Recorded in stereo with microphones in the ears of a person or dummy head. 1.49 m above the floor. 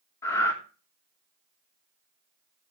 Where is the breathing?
15° left (ahead or behind), 1.1 m.